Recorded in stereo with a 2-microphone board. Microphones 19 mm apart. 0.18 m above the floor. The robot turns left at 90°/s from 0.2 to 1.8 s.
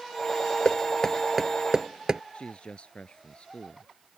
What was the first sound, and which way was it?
Knocking, 55° left (ahead or behind).